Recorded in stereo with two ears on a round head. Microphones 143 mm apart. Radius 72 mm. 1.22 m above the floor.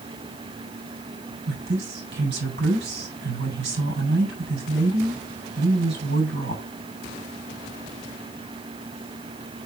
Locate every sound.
1.5 s a woman speaking: 75° right (ahead or behind), 7 m